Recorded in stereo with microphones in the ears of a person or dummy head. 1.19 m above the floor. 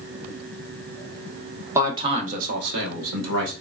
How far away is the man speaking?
About 1.0 m.